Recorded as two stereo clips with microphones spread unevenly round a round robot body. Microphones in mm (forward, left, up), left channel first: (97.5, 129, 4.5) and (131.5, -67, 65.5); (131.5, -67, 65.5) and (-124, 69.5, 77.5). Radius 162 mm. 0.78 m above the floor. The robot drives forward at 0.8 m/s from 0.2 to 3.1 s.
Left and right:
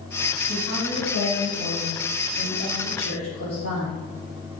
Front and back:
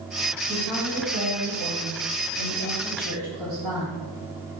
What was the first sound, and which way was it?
A woman speaking, 100° left.